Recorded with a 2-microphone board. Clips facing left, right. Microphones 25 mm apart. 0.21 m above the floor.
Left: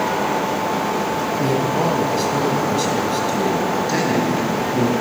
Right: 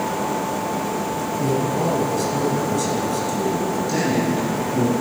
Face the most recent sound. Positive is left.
turn(degrees=30)  # may be behind; listen again after turning